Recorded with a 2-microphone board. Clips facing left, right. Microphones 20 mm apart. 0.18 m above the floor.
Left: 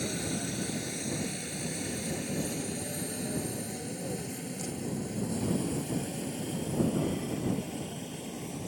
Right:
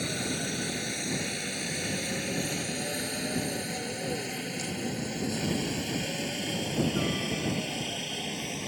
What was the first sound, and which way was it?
A helicopter, 20° right (ahead or behind).